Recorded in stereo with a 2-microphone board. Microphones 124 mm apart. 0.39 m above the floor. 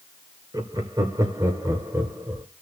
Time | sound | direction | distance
0.5 | laughter | 30° right (ahead or behind) | 1.4 m